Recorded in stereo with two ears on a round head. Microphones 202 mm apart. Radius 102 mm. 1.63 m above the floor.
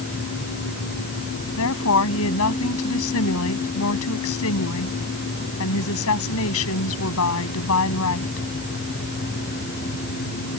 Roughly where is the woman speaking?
Left.